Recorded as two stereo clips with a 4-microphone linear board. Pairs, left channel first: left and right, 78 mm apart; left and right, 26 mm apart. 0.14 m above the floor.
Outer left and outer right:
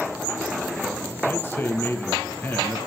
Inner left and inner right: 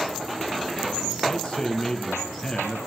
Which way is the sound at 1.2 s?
25° left (ahead or behind).